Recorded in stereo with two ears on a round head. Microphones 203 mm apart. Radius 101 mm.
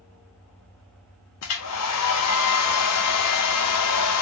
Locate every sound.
1.4 s a hair dryer: 80° left, 0.8 m